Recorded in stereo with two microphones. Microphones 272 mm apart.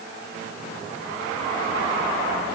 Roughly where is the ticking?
I don't hear ticking.